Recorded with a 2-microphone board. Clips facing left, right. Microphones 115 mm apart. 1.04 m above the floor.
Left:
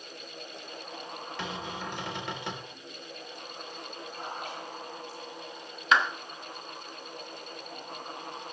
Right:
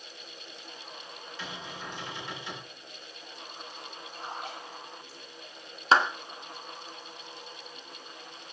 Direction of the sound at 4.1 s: 50° left (ahead or behind).